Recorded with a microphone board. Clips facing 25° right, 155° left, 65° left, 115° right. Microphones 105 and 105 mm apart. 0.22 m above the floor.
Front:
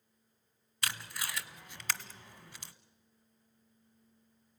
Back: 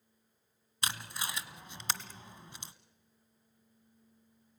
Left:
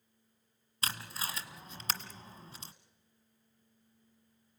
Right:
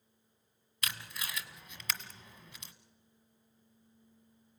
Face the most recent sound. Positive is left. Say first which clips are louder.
# back 1 dB, left 3 dB
turn(degrees=115)